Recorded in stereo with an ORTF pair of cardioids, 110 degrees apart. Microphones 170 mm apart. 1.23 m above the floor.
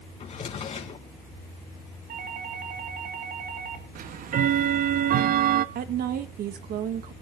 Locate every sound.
0.2 s a drawer: 40° left, 4 m
2.1 s a doorbell: 60° right, 6 m
4.0 s ticking: 60° right, 1.1 m
5.8 s a woman speaking: 65° right, 2 m